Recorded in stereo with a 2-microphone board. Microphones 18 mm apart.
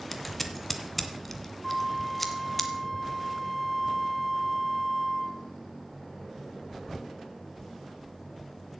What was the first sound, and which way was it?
Scissors, 5° left (ahead or behind).